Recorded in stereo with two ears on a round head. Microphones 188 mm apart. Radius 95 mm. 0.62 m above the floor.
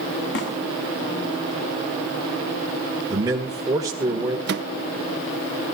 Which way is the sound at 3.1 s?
15° right (ahead or behind).